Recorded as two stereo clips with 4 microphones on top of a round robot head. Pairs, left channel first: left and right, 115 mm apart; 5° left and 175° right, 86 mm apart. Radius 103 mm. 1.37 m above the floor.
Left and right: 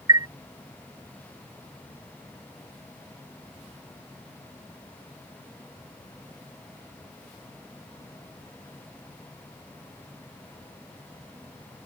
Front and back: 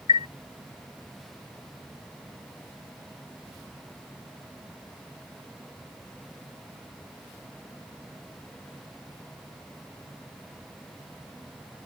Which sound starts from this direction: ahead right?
A chime, at 0.1 s.